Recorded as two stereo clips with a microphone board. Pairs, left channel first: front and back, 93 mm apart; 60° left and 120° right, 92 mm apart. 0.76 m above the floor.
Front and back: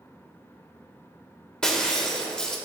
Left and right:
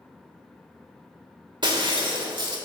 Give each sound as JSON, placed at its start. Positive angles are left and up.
{"t": 1.6, "sound": "breaking glass", "azimuth_deg": -80, "distance_m": 1.1}